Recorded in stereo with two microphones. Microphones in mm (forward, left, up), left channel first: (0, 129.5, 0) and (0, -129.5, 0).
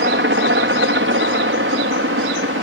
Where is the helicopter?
45° right (ahead or behind); by 2.6 s 50° right (ahead or behind).